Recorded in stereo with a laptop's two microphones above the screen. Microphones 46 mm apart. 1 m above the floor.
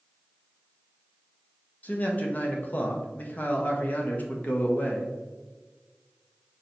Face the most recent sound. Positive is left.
turn(degrees=40)  # may be behind; listen again after turning